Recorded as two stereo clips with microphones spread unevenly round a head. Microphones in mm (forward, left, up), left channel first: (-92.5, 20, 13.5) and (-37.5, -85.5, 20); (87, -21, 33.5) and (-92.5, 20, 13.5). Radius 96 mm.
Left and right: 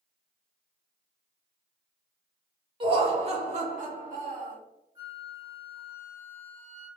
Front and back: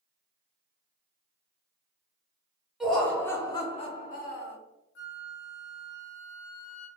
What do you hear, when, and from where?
2.8 s laughter: 105° right, 1.3 m; by 4.6 s 40° right, 1.2 m
5.0 s a flute: 10° left, 0.7 m